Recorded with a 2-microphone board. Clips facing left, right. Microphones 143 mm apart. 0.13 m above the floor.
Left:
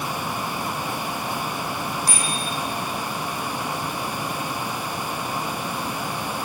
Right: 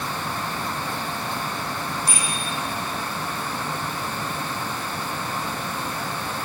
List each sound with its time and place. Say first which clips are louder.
2.1 s a bicycle bell: left 1 dB; 35° left (ahead or behind), 4.5 m